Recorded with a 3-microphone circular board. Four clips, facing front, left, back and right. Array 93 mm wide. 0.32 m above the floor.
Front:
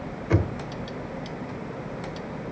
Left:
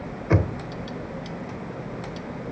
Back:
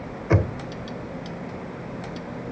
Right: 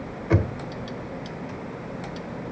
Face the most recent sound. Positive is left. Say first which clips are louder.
# left 1 dB, back 2 dB
turn(degrees=140)